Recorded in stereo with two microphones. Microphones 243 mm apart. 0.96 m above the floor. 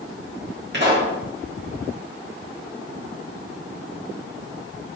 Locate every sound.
0.7 s a pop: 45° right (ahead or behind), 1.7 m